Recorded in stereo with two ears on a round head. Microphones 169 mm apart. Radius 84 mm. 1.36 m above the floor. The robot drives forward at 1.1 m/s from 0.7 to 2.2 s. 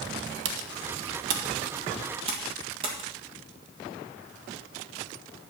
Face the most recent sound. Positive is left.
turn(degrees=-30)  # may be behind; listen again after turning